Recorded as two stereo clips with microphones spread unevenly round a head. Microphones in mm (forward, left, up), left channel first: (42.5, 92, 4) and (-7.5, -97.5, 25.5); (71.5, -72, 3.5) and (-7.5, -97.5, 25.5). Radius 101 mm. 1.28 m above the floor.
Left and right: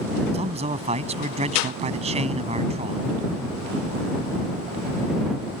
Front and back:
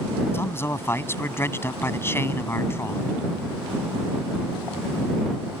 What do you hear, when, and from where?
0.3 s a man speaking: 45° right